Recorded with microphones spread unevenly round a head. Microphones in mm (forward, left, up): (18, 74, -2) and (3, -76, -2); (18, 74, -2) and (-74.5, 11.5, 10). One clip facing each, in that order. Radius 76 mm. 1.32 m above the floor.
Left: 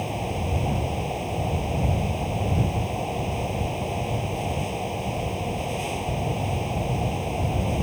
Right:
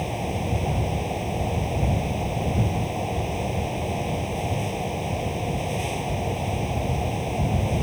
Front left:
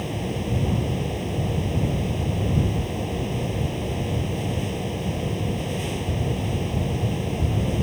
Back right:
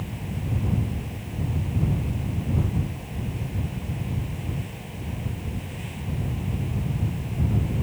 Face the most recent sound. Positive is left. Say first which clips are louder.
# right 1 dB, front left 6 dB
turn(degrees=-10)